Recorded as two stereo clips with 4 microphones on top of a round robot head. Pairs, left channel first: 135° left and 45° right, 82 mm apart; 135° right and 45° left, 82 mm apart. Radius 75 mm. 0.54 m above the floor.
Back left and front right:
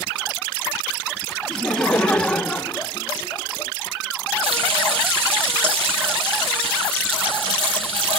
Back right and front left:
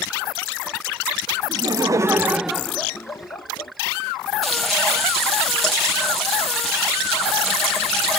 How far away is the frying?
About 3.5 m.